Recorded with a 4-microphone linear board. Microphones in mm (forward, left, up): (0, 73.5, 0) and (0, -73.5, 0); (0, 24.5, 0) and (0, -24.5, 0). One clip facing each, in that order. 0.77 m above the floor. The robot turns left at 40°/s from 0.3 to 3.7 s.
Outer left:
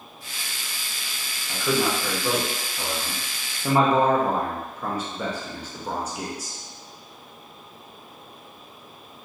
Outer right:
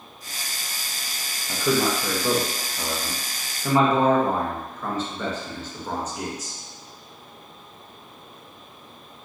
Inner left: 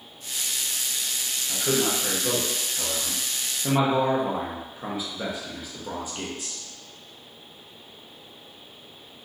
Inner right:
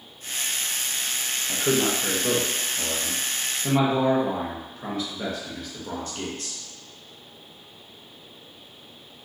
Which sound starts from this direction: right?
A man speaking, at 1.5 s.